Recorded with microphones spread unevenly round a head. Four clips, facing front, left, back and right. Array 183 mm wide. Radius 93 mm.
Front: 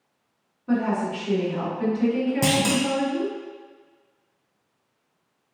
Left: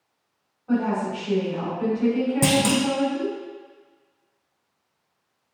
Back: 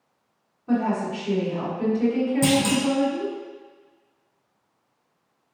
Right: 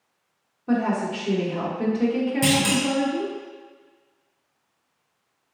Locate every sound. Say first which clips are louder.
0.7 s a woman speaking: even, even; 75° right, 1.7 m
2.4 s a clunk: left 2 dB, back 2 dB; 60° left, 0.6 m